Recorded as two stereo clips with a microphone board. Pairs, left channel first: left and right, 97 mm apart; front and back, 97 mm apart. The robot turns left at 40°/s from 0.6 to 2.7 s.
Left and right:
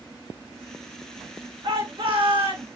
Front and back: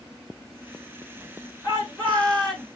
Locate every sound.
1.6 s a shout: 55° right, 3 m; by 2.6 s 95° right, 3 m